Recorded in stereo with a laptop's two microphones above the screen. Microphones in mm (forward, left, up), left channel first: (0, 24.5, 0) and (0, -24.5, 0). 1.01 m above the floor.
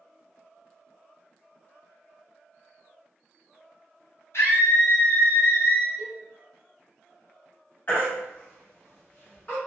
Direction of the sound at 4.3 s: 65° left (ahead or behind).